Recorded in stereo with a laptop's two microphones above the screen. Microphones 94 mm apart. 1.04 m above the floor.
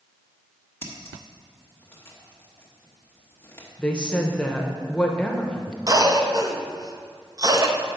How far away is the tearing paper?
No tearing paper in this recording.